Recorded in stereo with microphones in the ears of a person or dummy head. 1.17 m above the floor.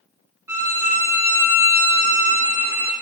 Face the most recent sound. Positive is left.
turn(degrees=-15)  # may be behind; listen again after turning